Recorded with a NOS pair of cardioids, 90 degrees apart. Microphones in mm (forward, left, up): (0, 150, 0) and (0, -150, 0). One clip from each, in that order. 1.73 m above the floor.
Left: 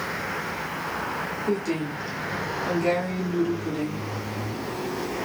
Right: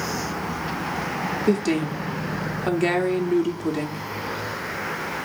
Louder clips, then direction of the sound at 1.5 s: Right 5 dB; 55° right.